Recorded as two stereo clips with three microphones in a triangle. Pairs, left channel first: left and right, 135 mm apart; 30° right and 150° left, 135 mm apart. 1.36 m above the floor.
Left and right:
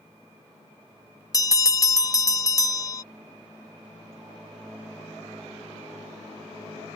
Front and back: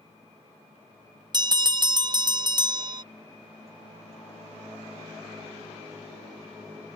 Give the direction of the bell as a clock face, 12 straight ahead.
8 o'clock.